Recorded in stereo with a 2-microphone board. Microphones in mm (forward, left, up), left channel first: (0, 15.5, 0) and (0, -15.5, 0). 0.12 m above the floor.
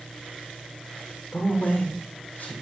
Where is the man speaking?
70° left (ahead or behind), 4.5 m; by 2.5 s 45° left (ahead or behind), 4.5 m.